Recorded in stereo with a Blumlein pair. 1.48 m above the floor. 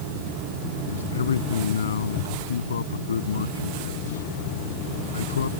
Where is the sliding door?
No sliding door in this recording.